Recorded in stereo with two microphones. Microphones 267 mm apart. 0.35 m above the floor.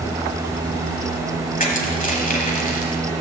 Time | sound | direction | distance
1.6 | crushing | 30° left (ahead or behind) | 1.3 m